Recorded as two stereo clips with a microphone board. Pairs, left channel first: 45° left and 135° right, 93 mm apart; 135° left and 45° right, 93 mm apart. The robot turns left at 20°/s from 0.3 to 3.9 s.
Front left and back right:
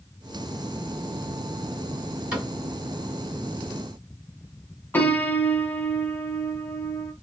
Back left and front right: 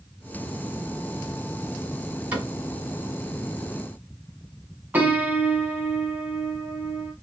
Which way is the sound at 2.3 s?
85° right.